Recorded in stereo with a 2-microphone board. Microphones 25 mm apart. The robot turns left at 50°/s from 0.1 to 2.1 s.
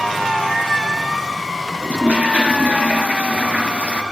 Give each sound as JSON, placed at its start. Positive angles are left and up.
{"t": 1.8, "sound": "a toilet flushing", "side_deg": -80, "distance_m": 3.0}